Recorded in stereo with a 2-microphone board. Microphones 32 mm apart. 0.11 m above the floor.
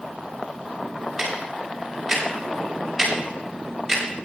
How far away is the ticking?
About 7 m.